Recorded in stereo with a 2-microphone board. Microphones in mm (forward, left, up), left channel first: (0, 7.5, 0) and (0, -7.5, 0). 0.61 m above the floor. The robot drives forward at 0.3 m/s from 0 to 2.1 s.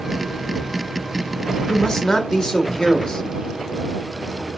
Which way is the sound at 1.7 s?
40° left (ahead or behind).